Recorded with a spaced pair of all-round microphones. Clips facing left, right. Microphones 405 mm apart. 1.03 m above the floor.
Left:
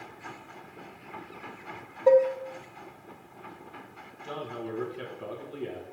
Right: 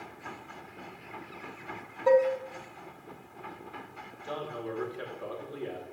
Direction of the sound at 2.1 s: 30° right (ahead or behind).